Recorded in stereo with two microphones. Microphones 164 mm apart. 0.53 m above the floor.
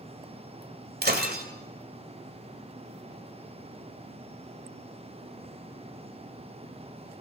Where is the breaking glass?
75° right (ahead or behind), 1.6 m.